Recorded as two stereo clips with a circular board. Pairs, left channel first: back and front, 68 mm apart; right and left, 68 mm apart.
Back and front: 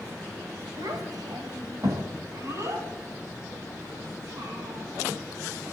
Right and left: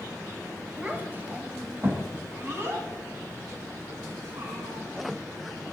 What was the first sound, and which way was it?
A child speaking, 20° left.